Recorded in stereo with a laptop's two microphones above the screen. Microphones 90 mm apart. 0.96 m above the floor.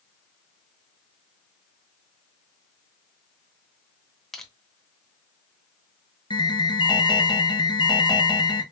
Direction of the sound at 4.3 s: 5° left (ahead or behind).